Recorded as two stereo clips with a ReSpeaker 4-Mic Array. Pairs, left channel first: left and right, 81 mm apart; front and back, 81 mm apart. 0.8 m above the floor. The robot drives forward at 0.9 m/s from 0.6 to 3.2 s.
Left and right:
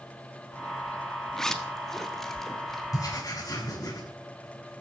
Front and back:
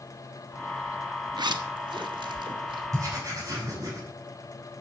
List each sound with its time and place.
1.4 s a zipper: 175° left, 1.1 m
2.9 s writing: 135° left, 7.5 m